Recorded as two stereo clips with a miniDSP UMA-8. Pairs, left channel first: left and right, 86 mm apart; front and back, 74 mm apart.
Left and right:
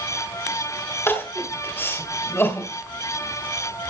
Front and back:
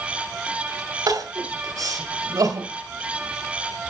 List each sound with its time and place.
1.1 s crying: 150° left, 2 m